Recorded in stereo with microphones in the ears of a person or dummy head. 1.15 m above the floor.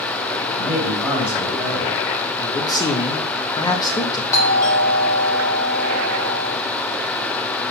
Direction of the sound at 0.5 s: 10° right (ahead or behind).